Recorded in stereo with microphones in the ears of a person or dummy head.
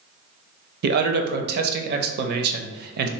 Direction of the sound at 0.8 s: 50° right (ahead or behind).